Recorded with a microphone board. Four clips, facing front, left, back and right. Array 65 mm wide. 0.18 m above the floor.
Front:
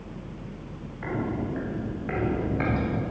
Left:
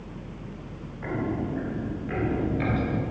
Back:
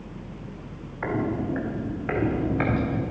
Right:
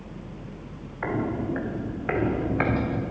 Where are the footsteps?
135° right, 2 m; by 3.0 s 105° right, 2.5 m.